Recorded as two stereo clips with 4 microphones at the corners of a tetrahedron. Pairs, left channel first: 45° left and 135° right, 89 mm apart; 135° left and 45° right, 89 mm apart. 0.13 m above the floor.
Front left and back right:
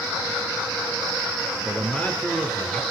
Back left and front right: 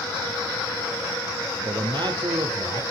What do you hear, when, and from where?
1.6 s a man speaking: 25° right, 2.5 m